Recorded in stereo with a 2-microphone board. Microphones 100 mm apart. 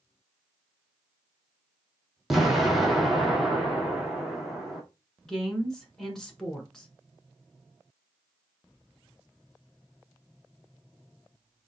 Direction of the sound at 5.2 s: 5° left (ahead or behind).